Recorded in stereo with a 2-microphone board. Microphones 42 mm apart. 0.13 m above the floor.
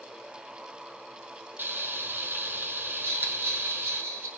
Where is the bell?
70° right (ahead or behind), 6.5 m.